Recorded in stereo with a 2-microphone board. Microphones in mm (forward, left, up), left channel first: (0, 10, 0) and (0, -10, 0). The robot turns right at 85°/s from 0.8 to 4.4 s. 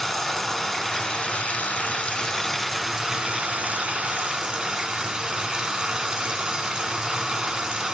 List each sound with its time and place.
0.0 s running water: 10° left, 2.5 m; by 7.9 s 40° right, 2.5 m